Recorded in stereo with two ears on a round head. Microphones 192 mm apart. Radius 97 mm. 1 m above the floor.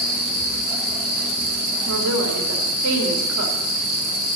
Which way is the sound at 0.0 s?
45° left (ahead or behind).